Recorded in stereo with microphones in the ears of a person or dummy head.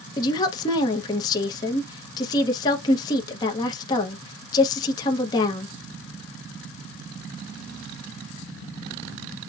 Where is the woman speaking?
25° left (ahead or behind), 0.7 m.